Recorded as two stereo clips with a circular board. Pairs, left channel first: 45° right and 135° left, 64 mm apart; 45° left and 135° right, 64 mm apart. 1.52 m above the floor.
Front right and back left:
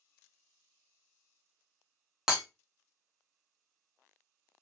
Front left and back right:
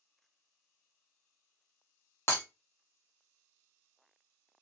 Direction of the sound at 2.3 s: 55° left.